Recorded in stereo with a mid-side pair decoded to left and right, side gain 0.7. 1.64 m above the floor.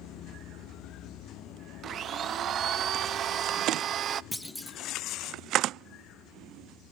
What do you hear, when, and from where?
1.8 s a blender: 45° right, 0.5 m
4.3 s a clunk: straight ahead, 0.6 m